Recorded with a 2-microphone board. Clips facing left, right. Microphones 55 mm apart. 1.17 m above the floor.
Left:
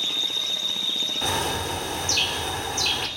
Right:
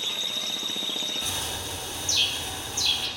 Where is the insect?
55° right (ahead or behind), 3 m.